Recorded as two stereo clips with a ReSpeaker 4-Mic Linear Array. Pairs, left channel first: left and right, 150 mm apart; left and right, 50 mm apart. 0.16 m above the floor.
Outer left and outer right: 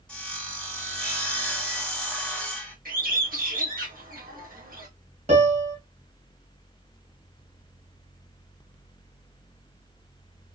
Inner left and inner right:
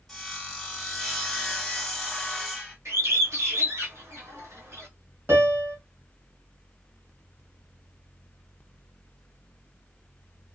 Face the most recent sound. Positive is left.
turn(degrees=-50)  # may be behind; listen again after turning